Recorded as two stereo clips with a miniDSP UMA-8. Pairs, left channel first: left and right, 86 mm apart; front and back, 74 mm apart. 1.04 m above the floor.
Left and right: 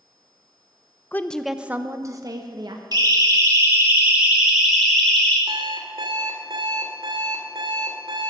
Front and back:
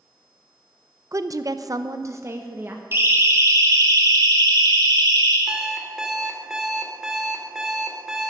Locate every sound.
1.1 s a woman speaking: 150° left, 0.6 m; by 2.8 s 120° right, 1.1 m
2.9 s a siren: 125° right, 2.5 m; by 5.4 s 170° left, 3.5 m
5.5 s an alarm clock: 95° right, 2 m